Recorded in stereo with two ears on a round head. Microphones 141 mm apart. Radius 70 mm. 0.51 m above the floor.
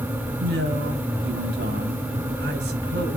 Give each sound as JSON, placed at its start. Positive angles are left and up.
{"t": 0.4, "sound": "a man speaking", "side_deg": -75, "distance_m": 3.0}